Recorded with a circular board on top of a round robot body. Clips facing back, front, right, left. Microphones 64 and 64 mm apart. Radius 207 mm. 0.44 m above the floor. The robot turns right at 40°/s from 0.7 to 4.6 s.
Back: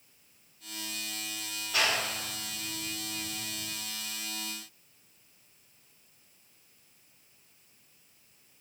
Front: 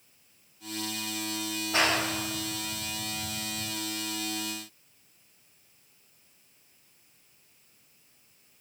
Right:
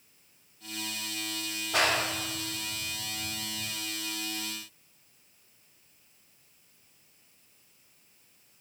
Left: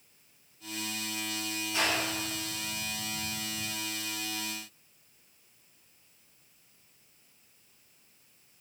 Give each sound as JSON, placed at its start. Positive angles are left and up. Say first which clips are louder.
{"t": 1.7, "sound": "a clap", "louder": "front 3 dB, right 4 dB", "azimuth_deg": -60, "distance_m": 2.5}